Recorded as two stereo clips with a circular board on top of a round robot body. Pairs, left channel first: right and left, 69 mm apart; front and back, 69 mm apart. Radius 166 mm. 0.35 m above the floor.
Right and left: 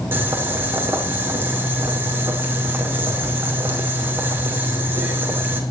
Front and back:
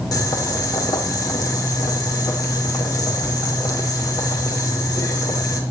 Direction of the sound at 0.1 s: 30° left.